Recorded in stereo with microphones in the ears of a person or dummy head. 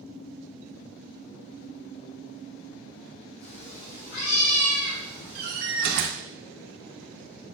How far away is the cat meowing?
About 3 m.